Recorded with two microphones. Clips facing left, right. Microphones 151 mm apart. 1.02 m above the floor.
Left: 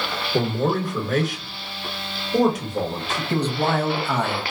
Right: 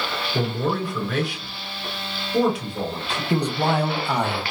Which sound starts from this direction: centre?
A man speaking, at 3.3 s.